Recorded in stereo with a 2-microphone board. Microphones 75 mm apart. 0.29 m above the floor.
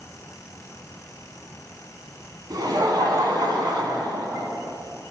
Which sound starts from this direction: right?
Laughter, at 2.5 s.